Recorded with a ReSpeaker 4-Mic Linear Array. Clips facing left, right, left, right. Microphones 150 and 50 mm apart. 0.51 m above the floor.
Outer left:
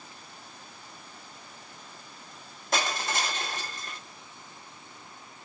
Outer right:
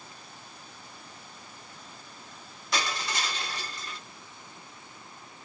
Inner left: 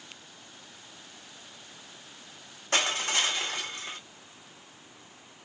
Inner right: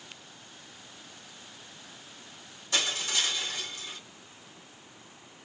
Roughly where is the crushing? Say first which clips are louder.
Outer left 2 dB, inner left 3 dB; left.